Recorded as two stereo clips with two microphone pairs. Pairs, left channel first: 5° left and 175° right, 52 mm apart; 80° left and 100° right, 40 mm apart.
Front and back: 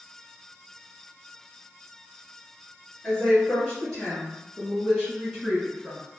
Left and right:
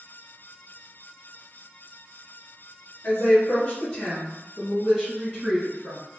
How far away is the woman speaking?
About 1.9 m.